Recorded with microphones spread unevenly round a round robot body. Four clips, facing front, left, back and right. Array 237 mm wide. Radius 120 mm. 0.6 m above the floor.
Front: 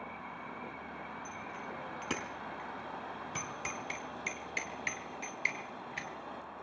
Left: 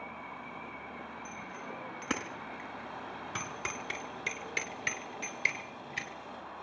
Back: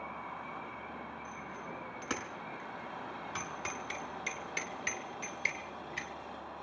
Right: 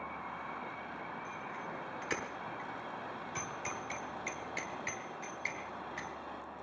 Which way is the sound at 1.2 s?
55° left.